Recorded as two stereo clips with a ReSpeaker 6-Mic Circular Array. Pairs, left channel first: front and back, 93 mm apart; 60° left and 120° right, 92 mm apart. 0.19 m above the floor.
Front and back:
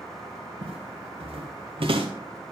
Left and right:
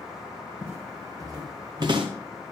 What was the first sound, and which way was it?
Footsteps, 170° left.